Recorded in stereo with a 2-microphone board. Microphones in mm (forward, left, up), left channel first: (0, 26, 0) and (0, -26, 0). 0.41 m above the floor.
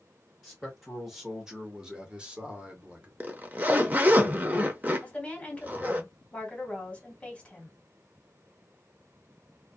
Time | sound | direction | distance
0.4 | a man speaking | 5° left (ahead or behind) | 1.4 m
3.2 | a zipper | 30° right (ahead or behind) | 0.6 m
5.0 | a woman speaking | 20° left (ahead or behind) | 1.8 m